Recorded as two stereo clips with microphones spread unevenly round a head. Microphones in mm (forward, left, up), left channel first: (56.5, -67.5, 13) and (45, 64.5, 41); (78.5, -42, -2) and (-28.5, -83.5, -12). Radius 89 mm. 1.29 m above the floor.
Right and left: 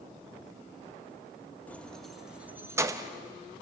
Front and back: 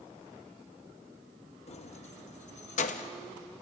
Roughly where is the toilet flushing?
I don't hear a toilet flushing.